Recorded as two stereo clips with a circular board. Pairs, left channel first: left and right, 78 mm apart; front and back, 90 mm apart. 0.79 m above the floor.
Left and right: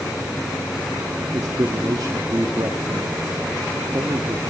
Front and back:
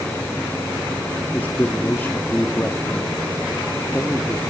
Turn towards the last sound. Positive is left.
turn(degrees=-65)